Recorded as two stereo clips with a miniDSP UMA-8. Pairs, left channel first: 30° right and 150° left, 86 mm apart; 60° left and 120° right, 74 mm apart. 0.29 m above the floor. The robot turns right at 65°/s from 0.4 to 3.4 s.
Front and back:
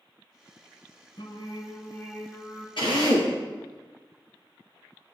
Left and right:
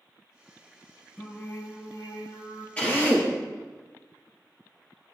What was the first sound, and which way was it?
Singing, 30° right.